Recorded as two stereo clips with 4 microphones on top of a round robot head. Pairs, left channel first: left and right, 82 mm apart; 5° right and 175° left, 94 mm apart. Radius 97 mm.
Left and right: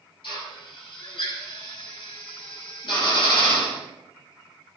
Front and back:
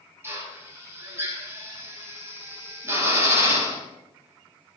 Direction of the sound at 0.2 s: 110° left.